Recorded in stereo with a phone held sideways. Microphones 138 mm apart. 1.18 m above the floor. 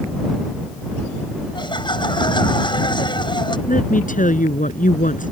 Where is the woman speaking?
70° left (ahead or behind).